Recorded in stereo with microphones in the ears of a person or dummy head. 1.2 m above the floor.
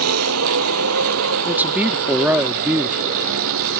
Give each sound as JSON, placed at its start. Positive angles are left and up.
{"t": 0.0, "sound": "a vehicle", "side_deg": -85}
{"t": 1.4, "sound": "a man speaking", "side_deg": -10}